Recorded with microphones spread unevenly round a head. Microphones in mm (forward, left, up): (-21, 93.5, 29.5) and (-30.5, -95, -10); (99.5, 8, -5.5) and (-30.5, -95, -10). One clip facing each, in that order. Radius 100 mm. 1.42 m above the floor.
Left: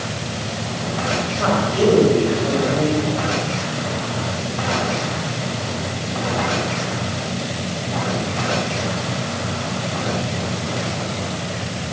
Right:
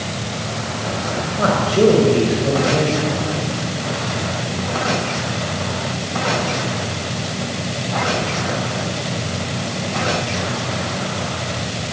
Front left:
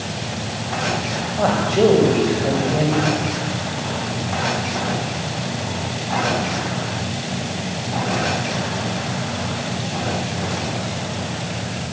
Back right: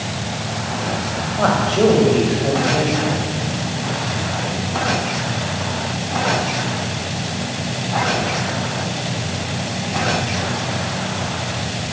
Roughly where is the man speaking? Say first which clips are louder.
Right 4 dB, even; ahead right.